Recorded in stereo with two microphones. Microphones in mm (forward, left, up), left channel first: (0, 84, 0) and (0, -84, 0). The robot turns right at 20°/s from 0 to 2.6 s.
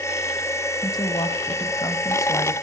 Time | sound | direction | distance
0.8 | a woman speaking | 25° left (ahead or behind) | 1.1 m